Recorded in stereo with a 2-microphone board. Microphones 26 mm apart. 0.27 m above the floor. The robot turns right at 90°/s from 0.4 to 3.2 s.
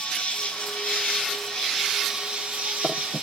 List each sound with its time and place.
0.0 s an insect: 50° left, 7 m; by 3.2 s 55° right, 7 m